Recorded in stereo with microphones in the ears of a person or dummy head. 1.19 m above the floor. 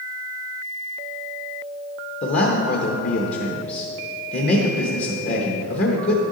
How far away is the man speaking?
About 1.0 m.